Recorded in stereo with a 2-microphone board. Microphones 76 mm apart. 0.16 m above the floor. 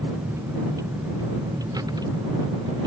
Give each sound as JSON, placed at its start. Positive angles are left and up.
{"t": 0.0, "sound": "a vehicle", "side_deg": -35}